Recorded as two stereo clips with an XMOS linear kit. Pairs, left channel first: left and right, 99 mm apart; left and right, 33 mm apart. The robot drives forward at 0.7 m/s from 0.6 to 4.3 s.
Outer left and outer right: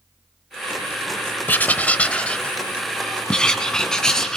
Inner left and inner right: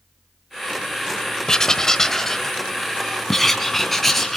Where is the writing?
20° left (ahead or behind), 0.7 m; by 4.4 s 5° left (ahead or behind), 2.5 m.